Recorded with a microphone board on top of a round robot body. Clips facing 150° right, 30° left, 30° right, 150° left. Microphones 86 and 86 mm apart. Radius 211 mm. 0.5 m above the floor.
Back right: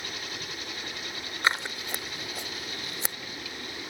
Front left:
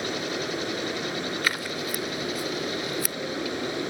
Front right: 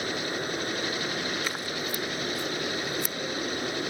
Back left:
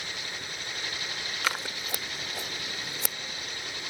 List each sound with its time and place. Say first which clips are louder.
0.0 s running water: front left 10 dB, front right 9 dB; 15° left
1.4 s scissors: even, front right 1 dB; 145° left